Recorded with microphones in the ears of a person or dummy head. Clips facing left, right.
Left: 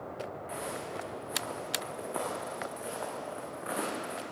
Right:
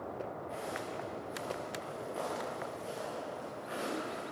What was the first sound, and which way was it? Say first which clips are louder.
Footsteps: left 2 dB; 75° left (ahead or behind).